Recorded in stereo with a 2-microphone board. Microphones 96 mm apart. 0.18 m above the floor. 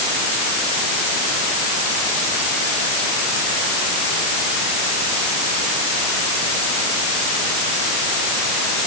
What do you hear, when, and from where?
Only background noise.